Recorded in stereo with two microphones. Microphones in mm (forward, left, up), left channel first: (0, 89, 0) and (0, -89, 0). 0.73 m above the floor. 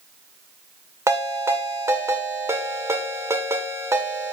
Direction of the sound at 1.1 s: 15° right (ahead or behind).